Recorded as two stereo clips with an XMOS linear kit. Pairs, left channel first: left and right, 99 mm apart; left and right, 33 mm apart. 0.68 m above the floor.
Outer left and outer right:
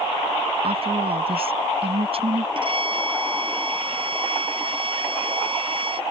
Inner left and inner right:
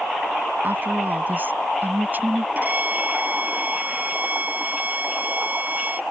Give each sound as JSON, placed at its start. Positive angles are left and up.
{"t": 0.6, "sound": "a woman speaking", "side_deg": -65}
{"t": 2.5, "sound": "a violin", "side_deg": -55}